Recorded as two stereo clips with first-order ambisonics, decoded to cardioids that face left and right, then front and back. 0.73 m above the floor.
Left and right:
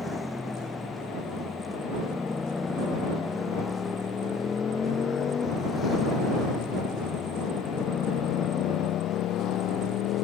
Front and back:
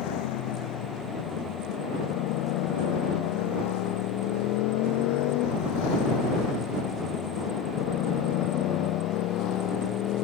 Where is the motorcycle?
5° left; by 10.2 s 45° left.